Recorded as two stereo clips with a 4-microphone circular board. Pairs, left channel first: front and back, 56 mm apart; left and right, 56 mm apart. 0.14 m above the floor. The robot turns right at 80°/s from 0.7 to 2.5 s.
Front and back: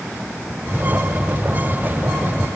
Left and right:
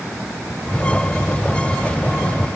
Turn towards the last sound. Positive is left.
No sound to turn to.